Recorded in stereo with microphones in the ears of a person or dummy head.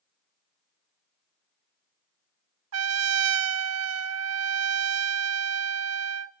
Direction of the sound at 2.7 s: 80° right.